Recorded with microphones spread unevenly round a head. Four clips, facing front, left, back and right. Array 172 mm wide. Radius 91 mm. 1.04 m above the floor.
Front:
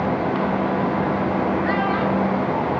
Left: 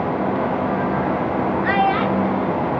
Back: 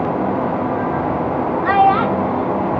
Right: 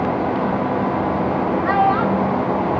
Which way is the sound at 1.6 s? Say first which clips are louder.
Right 2 dB, back 7 dB; 175° right.